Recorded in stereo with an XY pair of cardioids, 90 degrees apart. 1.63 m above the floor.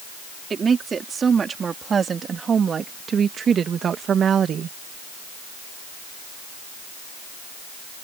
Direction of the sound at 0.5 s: 45° right.